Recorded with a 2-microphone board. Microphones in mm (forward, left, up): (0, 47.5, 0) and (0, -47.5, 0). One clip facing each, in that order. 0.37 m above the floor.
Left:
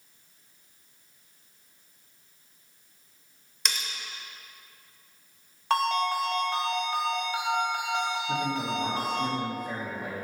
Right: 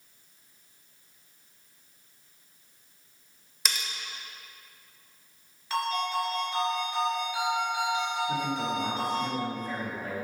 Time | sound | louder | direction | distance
3.6 | cutlery clinking | even | 5° right (ahead or behind) | 0.6 m
5.7 | a ringtone | left 4 dB | 75° left (ahead or behind) | 1.2 m
8.3 | a man speaking | even | 10° left (ahead or behind) | 1.0 m